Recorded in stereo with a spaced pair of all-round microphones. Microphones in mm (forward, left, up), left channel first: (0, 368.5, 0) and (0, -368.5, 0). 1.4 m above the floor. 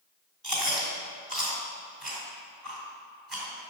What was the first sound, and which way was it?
Chewing, 35° right (ahead or behind).